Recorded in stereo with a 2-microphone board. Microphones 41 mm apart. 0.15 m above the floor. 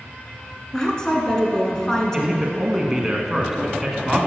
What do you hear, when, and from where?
0.7 s a woman speaking: 15° left (ahead or behind), 1.7 m
2.1 s a man speaking: 10° right (ahead or behind), 1.5 m